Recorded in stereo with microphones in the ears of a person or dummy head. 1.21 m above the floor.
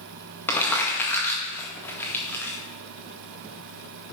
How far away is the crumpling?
About 1.9 m.